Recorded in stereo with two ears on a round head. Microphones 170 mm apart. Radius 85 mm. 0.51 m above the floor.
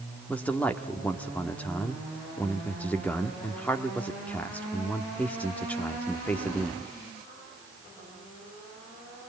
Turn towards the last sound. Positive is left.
turn(degrees=5)  # may be behind; listen again after turning